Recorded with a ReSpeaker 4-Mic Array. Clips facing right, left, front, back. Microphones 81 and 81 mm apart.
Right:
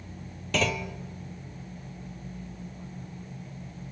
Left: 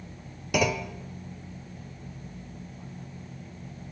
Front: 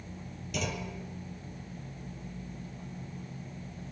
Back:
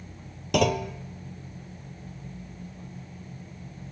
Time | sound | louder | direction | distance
0.5 | a clunk | left 2 dB, back 12 dB | 170° left | 0.9 m